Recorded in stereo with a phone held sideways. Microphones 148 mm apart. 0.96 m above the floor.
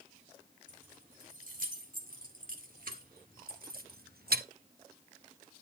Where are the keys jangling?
60° right (ahead or behind), 3 m; by 4.5 s 80° right, 0.6 m.